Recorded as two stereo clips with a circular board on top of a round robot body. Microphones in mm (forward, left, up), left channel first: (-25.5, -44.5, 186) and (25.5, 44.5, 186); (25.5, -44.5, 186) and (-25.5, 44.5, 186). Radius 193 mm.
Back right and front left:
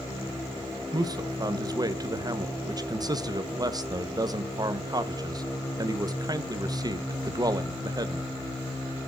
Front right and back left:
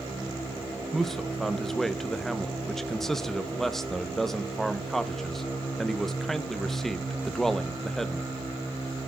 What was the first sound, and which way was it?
A man speaking, 25° left.